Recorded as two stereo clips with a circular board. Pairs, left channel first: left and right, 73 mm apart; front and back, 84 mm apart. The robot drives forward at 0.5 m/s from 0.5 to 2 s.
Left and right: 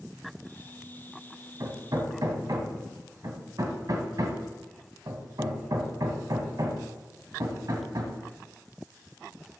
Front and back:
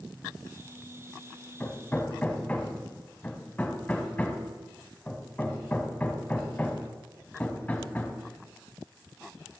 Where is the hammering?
60° right, 1.6 m; by 8.2 s 70° right, 1.5 m.